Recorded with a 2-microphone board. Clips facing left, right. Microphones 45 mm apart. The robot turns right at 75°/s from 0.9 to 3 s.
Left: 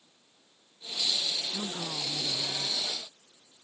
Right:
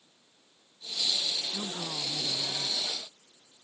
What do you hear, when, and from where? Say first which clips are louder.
1.5 s a man speaking: left 1 dB; 15° left (ahead or behind); by 2.9 s 10° left (ahead or behind)